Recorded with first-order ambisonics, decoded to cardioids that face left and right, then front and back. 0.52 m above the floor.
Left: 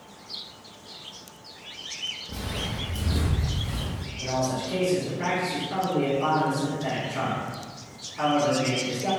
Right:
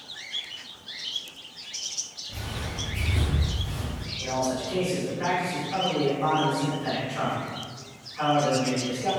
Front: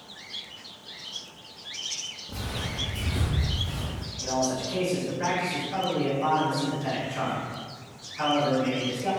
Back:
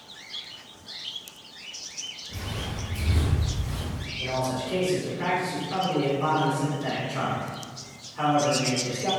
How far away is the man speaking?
About 1.9 m.